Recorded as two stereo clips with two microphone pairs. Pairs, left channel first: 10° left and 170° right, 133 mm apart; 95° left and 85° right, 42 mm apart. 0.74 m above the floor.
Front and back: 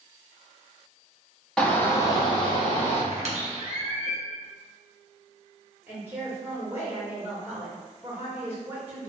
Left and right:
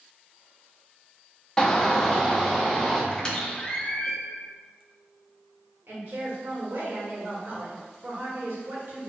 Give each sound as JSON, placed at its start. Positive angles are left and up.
{"t": 1.6, "sound": "a shout", "azimuth_deg": 90, "distance_m": 0.7}
{"t": 3.1, "sound": "a squeak", "azimuth_deg": 165, "distance_m": 0.8}
{"t": 5.9, "sound": "a woman speaking", "azimuth_deg": -95, "distance_m": 1.3}